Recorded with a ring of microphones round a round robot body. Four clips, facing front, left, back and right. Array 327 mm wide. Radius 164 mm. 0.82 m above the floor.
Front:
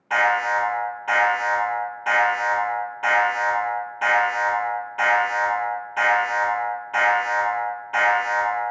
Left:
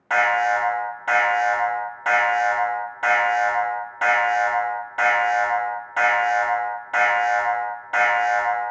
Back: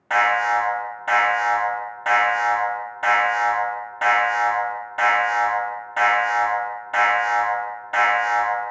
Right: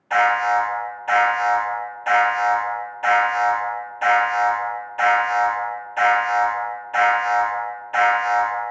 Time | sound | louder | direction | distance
0.1 | an alarm | right 2 dB, back 1 dB | 135° left | 1.3 m